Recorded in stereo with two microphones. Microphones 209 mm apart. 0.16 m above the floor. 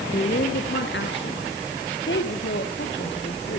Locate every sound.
0.1 s a woman speaking: 45° left (ahead or behind), 2.5 m; by 3.6 s 55° left (ahead or behind), 6 m